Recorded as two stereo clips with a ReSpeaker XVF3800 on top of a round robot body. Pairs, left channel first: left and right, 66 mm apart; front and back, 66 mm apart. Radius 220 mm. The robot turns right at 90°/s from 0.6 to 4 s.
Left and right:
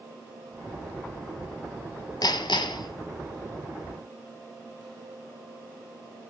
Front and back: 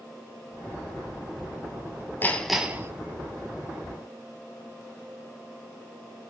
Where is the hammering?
60° left, 1.8 m; by 2.9 s 125° left, 1.8 m.